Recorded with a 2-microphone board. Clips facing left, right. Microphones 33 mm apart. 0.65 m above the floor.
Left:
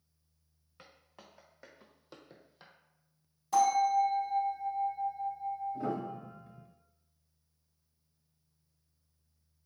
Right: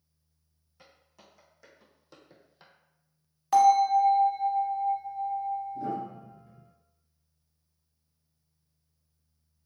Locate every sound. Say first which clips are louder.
0.8 s footsteps: left 1 dB; 40° left (ahead or behind), 1.6 m; by 2.7 s centre (ahead or behind), 0.8 m
3.5 s a bell: right 6 dB; 60° right (ahead or behind), 1.2 m
5.7 s a piano: right 2 dB; 70° left (ahead or behind), 1.3 m